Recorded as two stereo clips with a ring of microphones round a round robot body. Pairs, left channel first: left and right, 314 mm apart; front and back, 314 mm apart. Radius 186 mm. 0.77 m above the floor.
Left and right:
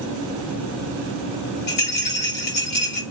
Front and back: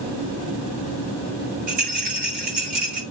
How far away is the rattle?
About 5.5 m.